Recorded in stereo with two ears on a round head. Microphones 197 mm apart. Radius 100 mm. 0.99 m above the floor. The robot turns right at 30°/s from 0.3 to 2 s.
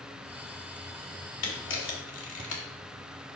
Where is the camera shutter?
75° left (ahead or behind), 2 m; by 2.6 s 60° left (ahead or behind), 2 m.